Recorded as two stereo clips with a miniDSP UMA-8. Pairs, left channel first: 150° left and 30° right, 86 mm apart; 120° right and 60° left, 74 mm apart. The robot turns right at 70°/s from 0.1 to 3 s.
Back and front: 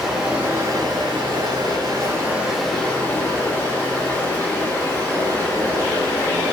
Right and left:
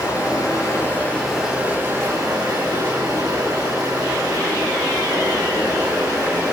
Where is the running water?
115° right, 5 m; by 6.5 s 90° left, 5 m.